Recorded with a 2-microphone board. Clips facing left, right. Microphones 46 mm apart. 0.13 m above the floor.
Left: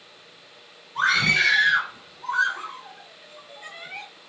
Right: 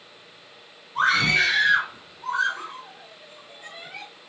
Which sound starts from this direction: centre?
A scream, at 0.9 s.